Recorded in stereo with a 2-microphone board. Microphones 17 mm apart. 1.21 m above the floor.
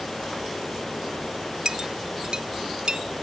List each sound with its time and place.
1.6 s a clink: 55° right (ahead or behind)